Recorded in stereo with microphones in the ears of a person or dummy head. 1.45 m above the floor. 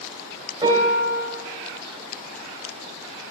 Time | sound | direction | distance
0.6 | a piano | 25° right (ahead or behind) | 3 m